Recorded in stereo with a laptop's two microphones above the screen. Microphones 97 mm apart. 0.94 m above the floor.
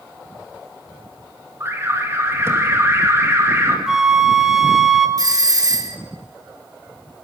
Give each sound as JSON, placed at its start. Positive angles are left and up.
{"t": 1.6, "sound": "an alarm", "side_deg": -30, "distance_m": 2.0}
{"t": 3.9, "sound": "a flute", "side_deg": -5, "distance_m": 1.4}
{"t": 5.2, "sound": "a doorbell", "side_deg": -45, "distance_m": 1.4}